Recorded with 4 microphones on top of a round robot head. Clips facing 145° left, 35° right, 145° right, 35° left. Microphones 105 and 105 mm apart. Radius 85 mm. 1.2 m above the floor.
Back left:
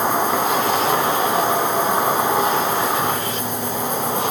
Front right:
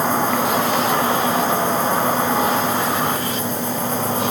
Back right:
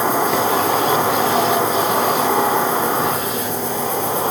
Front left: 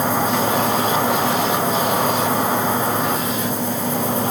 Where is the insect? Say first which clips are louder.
Even, back right 2 dB; 140° right, 5 m.